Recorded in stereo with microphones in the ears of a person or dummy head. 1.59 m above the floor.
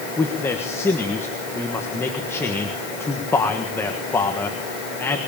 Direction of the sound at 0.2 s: 10° left (ahead or behind).